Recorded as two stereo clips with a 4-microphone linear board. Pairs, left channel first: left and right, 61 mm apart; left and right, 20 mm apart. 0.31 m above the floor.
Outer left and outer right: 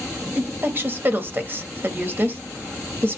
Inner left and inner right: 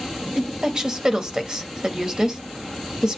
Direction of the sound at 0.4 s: 40° right (ahead or behind).